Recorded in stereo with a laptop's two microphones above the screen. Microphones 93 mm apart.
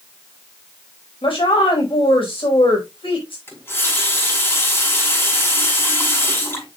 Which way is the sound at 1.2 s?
75° left (ahead or behind).